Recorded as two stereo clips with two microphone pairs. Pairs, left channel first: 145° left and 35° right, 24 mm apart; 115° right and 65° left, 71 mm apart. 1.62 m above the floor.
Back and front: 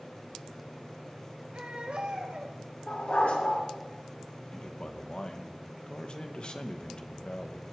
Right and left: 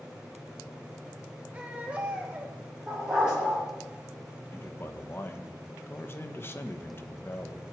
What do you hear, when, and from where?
1.5 s a baby crying: 10° right, 3 m
2.9 s a dog barking: 145° left, 8.5 m
4.5 s a man speaking: 170° right, 1.3 m